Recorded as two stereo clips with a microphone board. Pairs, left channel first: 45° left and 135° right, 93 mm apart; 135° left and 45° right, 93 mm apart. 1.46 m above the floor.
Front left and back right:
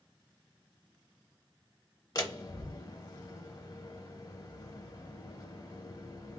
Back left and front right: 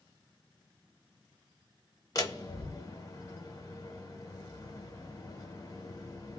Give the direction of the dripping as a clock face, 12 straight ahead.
I don't hear dripping.